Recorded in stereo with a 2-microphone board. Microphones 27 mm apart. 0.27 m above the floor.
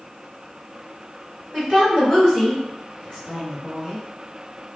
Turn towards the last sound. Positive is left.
turn(degrees=25)  # may be behind; listen again after turning